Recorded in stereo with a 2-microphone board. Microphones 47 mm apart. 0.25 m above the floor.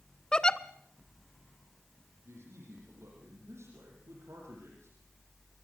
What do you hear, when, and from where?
0.3 s a giggle: 20° left (ahead or behind), 0.8 m
2.2 s a man speaking: 80° right, 9 m